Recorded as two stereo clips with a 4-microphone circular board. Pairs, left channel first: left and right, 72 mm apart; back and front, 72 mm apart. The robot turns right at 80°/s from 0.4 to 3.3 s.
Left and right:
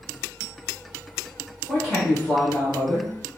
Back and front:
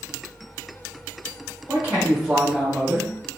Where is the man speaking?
20° right, 1.3 m; by 3.1 s 95° left, 1.3 m.